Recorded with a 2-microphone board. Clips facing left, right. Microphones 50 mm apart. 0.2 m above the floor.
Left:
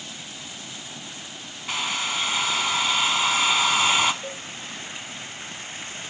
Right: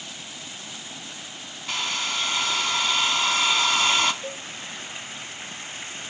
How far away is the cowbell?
About 2 m.